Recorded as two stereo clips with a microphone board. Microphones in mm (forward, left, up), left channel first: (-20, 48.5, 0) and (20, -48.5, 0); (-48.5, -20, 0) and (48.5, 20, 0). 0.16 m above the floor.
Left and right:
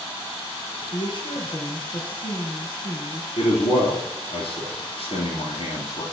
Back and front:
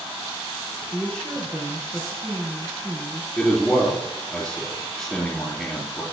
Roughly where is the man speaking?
Behind left.